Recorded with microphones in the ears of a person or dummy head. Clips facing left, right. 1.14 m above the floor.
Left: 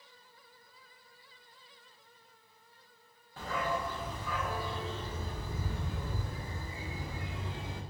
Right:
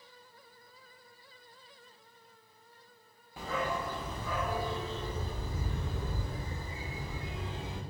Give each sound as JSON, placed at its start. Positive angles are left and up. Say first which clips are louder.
{"t": 3.4, "sound": "a dog barking", "louder": "even", "side_deg": -10, "distance_m": 0.7}